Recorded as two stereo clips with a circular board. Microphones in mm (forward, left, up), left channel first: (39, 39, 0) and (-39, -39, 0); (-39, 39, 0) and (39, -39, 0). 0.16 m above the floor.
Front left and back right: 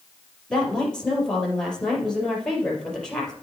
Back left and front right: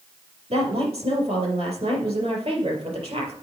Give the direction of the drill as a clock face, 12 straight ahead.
No drill in this recording.